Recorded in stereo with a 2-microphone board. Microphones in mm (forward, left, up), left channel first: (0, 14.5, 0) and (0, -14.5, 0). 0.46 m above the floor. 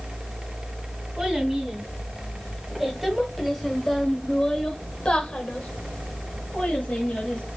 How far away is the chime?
I don't hear a chime.